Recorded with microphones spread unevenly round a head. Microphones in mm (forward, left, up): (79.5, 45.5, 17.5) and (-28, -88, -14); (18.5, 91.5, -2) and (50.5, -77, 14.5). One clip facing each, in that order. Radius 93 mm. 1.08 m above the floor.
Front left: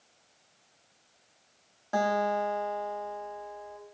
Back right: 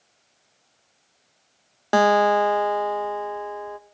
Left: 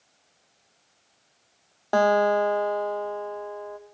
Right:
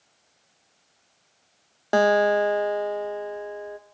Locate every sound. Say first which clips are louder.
1.9 s a guitar: back right 10 dB, right 1 dB; 145° right, 0.9 m